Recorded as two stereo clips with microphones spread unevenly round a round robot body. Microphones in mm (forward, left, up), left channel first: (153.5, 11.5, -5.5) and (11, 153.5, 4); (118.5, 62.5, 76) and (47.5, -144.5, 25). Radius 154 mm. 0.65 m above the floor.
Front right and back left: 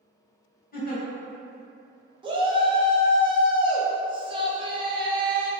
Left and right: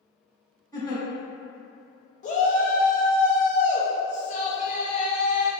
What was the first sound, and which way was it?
A giggle, 5° right.